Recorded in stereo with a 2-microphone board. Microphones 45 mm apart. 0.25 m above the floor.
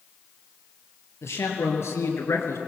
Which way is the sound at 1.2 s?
75° left (ahead or behind).